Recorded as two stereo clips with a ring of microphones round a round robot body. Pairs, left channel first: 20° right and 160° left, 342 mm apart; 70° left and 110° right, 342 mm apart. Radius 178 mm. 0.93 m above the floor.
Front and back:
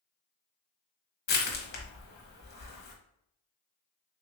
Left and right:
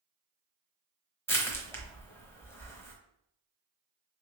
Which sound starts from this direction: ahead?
Crushing, at 1.3 s.